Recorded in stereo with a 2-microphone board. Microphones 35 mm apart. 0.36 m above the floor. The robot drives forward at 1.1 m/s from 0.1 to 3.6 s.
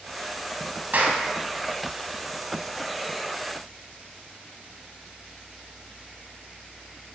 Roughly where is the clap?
Right.